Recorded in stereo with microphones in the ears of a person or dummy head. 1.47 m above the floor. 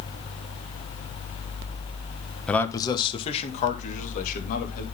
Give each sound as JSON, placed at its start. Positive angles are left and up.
{"t": 2.5, "sound": "a man speaking", "side_deg": 0, "distance_m": 1.1}